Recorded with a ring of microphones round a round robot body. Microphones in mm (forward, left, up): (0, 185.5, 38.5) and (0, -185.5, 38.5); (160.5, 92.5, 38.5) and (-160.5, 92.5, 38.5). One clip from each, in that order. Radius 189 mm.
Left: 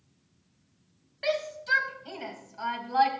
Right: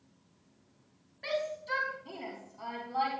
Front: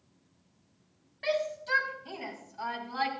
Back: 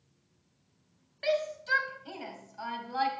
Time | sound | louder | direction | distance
1.2 | a shout | left 5 dB, back 1 dB | 120° left | 4.5 m